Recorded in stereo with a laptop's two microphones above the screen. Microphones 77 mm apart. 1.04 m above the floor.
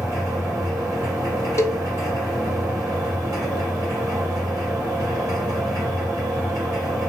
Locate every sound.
0.0 s a machine running: 50° right (ahead or behind), 3 m
1.6 s a cowbell: 35° left (ahead or behind), 0.6 m